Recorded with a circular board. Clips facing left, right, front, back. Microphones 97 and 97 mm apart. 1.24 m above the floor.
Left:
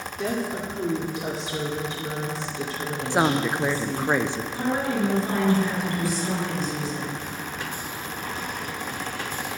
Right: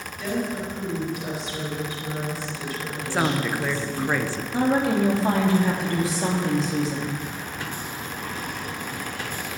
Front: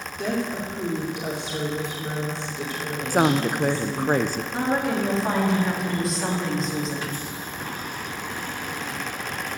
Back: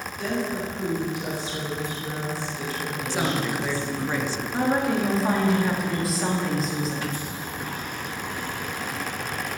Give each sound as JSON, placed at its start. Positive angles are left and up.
{"t": 0.2, "sound": "a woman speaking", "azimuth_deg": 65, "distance_m": 2.5}
{"t": 3.1, "sound": "a woman speaking", "azimuth_deg": 25, "distance_m": 0.8}
{"t": 4.5, "sound": "a woman speaking", "azimuth_deg": -90, "distance_m": 2.5}